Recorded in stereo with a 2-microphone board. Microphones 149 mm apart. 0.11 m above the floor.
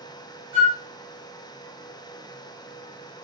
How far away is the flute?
About 2 m.